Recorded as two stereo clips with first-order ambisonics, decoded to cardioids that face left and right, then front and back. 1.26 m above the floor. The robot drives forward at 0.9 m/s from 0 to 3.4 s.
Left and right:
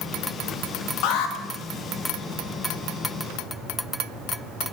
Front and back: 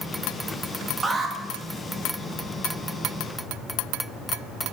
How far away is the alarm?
About 1.5 m.